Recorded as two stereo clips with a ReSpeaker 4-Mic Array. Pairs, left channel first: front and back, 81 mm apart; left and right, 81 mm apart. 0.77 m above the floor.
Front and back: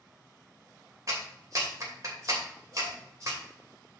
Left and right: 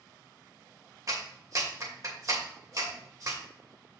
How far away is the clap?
About 2.5 m.